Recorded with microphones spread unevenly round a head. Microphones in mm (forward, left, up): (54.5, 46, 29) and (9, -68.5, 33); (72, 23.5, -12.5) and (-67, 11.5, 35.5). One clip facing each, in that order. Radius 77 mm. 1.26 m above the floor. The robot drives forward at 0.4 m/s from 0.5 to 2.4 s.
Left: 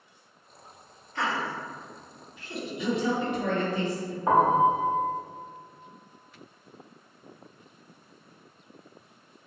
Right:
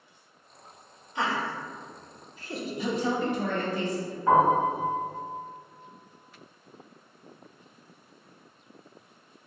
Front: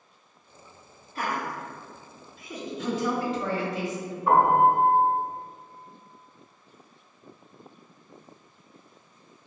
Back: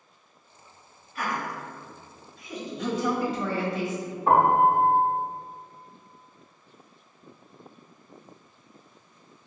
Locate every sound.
1.1 s laughter: 40° right, 1.0 m; by 3.8 s 70° right, 0.8 m
2.8 s a woman speaking: 170° right, 1.5 m
4.3 s a piano: 140° left, 0.9 m